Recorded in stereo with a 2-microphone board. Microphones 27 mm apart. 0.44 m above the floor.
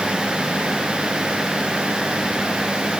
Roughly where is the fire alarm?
No fire alarm in this recording.